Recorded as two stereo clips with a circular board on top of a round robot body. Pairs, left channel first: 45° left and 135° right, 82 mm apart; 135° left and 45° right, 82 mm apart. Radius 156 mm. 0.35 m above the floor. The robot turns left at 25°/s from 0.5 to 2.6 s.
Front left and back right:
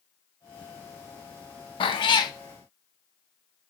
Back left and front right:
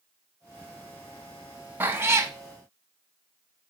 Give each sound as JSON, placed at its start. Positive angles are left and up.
{"t": 1.8, "sound": "a cat meowing", "azimuth_deg": 25, "distance_m": 0.7}